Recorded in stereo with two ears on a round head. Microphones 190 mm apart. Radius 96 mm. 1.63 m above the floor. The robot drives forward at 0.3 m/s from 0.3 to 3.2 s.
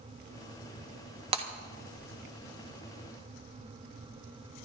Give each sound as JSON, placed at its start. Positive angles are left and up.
{"t": 1.3, "sound": "breaking glass", "side_deg": -25, "distance_m": 1.4}